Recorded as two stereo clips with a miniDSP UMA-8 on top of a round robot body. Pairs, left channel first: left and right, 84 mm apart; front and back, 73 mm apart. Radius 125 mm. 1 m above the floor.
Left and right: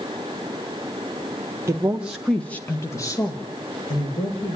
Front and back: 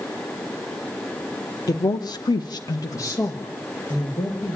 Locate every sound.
1.7 s a woman speaking: 35° right, 1.3 m; by 4.5 s 65° left, 3 m